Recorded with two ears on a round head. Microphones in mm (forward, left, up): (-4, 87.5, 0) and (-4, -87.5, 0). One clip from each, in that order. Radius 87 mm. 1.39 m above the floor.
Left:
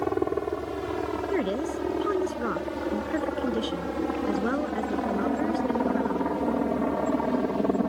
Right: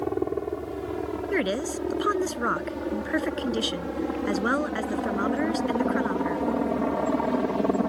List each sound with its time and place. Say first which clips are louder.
0.0 s a helicopter: left 1 dB; 35° left (ahead or behind); by 7.9 s 15° right (ahead or behind)
1.3 s a woman speaking: right 3 dB; 50° right (ahead or behind)